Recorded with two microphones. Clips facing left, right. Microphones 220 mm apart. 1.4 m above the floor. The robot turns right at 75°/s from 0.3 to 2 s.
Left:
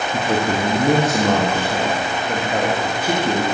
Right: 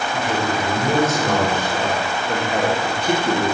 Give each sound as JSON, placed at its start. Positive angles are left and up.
{"t": 0.1, "sound": "a man speaking", "azimuth_deg": 45, "distance_m": 1.7}